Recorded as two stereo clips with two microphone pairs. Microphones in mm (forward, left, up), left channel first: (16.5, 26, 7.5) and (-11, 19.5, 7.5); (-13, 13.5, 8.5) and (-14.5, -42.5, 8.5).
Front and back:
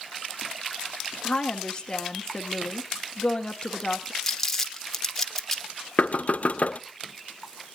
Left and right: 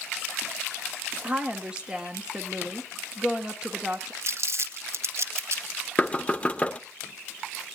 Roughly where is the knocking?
Ahead left.